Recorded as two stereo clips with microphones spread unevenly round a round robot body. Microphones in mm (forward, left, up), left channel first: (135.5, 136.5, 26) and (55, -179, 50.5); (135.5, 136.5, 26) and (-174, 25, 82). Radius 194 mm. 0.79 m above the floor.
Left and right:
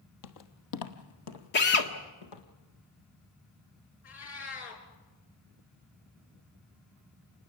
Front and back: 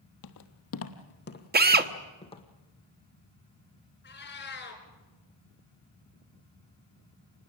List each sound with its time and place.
0.2 s footsteps: 55° left, 1.7 m; by 2.4 s 95° left, 3 m
1.5 s a drill: 135° left, 1.4 m
4.0 s a cat meowing: 80° left, 4.5 m